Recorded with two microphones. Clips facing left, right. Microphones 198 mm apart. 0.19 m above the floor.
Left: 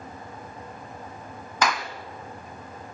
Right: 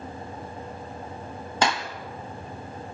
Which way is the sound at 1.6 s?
30° right (ahead or behind).